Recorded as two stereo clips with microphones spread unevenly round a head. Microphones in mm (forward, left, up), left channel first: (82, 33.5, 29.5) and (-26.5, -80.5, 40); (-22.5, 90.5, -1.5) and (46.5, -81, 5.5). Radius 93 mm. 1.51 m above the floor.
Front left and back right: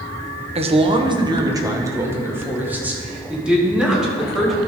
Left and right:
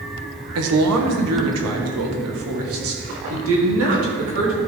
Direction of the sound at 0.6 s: 80° right.